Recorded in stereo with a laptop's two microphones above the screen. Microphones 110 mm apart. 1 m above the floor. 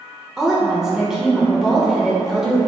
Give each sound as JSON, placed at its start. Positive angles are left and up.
{"t": 0.4, "sound": "a woman speaking", "side_deg": -5, "distance_m": 0.5}